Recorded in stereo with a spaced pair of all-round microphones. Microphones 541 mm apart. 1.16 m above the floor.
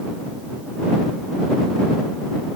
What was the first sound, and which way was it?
Only background noise.